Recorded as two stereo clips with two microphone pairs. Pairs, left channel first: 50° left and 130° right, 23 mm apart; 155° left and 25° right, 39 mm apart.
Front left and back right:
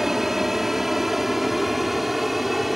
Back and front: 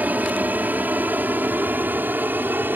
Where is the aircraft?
55° right; by 2.8 s 45° right.